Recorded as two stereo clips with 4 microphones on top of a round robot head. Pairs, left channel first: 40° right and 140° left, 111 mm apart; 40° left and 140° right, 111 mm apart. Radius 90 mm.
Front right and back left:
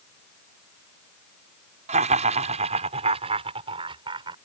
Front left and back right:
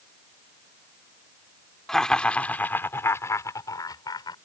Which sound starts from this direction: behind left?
Laughter, at 1.9 s.